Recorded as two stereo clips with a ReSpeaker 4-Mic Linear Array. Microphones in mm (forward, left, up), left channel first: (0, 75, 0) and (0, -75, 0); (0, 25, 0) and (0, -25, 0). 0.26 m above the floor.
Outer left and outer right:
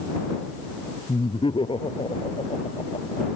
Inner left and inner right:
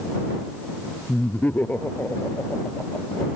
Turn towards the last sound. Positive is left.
turn(degrees=40)  # may be behind; listen again after turning